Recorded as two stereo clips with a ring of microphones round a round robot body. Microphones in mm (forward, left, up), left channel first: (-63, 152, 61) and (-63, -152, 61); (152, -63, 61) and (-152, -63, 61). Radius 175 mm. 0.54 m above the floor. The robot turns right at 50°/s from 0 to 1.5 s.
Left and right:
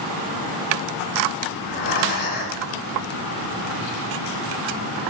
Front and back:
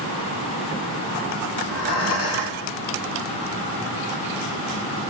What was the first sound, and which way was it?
Breathing, 50° left.